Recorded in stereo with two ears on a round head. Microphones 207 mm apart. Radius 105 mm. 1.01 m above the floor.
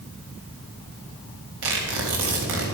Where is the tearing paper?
55° right (ahead or behind), 3.5 m.